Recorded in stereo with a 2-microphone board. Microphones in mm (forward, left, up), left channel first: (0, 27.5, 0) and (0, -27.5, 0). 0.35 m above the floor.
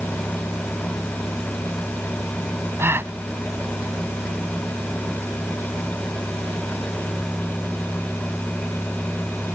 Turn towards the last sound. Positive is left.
turn(degrees=-50)  # may be behind; listen again after turning